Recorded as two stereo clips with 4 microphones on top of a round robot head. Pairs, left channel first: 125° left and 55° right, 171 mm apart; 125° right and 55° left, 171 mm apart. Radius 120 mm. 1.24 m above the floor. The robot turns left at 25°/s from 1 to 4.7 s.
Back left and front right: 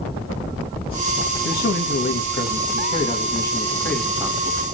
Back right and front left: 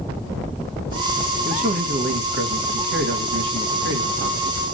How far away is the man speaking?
About 1.6 m.